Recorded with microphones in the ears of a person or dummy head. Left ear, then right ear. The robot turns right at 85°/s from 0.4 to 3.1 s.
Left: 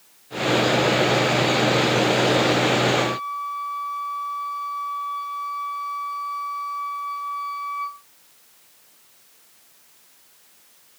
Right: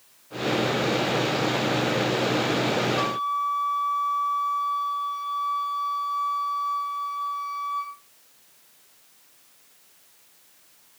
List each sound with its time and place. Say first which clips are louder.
3.0 s a flute: left 1 dB; 35° right (ahead or behind), 6 m; by 8.0 s 45° right (ahead or behind), 6 m